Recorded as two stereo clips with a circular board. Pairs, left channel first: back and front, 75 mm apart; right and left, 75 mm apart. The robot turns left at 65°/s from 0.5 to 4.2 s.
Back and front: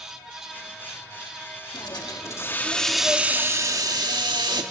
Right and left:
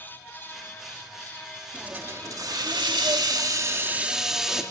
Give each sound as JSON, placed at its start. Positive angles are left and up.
{"t": 1.7, "sound": "a hiss", "azimuth_deg": 165, "distance_m": 1.8}